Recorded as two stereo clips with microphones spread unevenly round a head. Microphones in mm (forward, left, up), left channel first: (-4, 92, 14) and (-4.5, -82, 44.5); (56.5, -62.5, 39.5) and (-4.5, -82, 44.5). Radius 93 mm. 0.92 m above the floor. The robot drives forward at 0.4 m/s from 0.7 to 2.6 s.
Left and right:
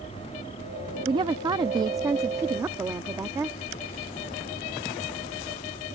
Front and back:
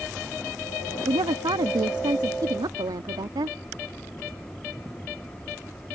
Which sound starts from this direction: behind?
A woman speaking, at 1.1 s.